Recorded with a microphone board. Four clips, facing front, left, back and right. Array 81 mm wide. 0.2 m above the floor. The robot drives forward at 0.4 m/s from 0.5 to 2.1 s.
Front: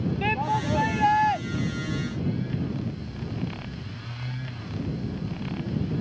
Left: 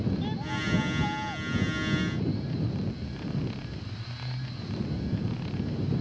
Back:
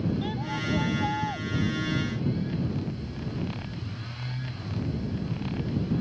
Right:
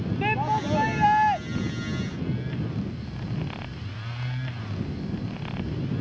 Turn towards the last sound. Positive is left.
turn(degrees=-65)